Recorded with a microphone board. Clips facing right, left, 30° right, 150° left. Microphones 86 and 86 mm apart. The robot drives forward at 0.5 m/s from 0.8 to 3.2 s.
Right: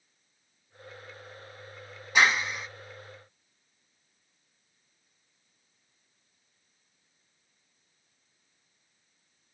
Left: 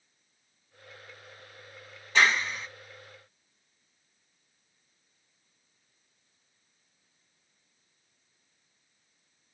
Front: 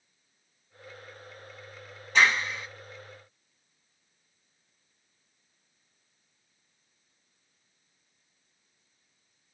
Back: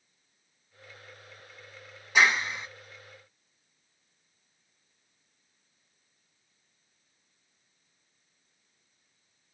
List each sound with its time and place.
2.1 s a clap: 145° right, 1.0 m; by 2.7 s 160° right, 1.1 m